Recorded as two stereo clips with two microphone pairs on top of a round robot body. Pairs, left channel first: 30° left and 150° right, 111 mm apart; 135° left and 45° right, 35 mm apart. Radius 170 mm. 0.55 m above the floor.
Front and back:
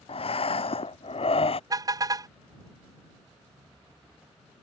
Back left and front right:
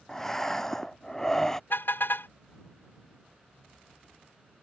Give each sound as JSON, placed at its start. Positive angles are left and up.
{"t": 0.1, "sound": "breathing", "azimuth_deg": 65}
{"t": 1.7, "sound": "a car horn", "azimuth_deg": 150}